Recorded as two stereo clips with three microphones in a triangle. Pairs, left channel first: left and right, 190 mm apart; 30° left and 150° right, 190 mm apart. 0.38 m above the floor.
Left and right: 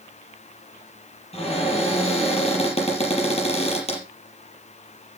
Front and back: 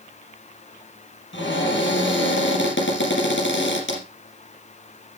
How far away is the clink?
No clink in this recording.